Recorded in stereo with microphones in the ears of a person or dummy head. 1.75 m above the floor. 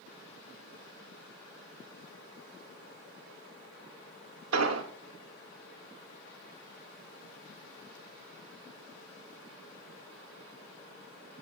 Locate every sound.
4.5 s an explosion: 85° right, 1.1 m